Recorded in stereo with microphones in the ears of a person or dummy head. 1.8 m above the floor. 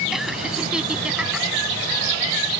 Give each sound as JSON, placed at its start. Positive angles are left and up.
{"t": 0.1, "sound": "laughter", "side_deg": -5}